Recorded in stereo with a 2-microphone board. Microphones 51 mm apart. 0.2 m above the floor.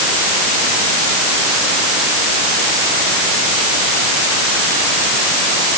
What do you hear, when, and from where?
Only background noise.